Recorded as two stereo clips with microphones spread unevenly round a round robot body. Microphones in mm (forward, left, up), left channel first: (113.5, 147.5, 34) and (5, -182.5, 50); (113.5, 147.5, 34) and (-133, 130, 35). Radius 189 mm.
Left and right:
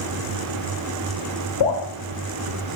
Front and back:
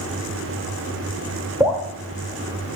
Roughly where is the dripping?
Left.